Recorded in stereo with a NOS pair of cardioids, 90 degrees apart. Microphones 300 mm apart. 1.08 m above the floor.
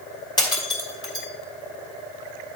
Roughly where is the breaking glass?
Ahead.